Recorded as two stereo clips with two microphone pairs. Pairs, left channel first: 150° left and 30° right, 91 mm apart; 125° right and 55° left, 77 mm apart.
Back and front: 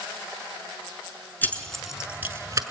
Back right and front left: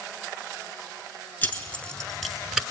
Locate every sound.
1.4 s keys jangling: 165° right, 1.2 m; by 2.6 s 20° right, 1.3 m